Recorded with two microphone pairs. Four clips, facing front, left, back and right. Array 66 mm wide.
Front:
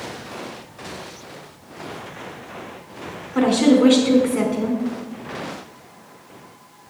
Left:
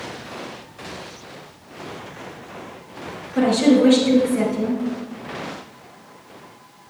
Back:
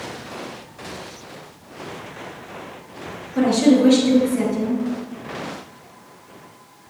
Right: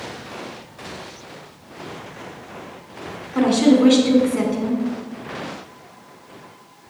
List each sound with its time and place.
3.4 s a woman speaking: 35° right, 2.5 m